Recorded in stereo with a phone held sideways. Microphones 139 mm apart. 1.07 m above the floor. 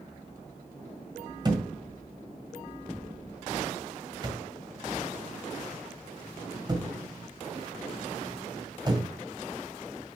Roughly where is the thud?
Right.